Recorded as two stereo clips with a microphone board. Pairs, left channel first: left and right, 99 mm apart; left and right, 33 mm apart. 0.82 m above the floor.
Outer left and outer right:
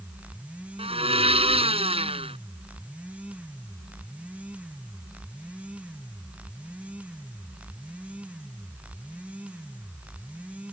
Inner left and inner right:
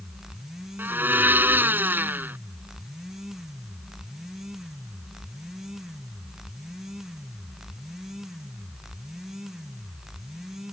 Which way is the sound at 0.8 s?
80° right.